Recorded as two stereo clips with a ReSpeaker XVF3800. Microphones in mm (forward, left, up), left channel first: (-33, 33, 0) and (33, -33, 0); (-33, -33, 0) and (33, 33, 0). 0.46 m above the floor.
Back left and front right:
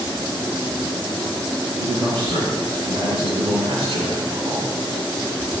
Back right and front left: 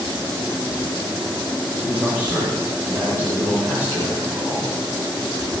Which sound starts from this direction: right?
A man speaking, at 1.8 s.